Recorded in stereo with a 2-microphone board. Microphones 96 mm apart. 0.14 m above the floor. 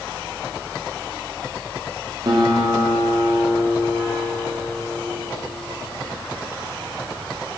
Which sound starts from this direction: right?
A guitar, at 2.2 s.